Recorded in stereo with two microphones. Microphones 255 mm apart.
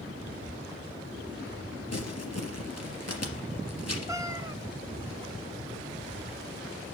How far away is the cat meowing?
About 1.2 m.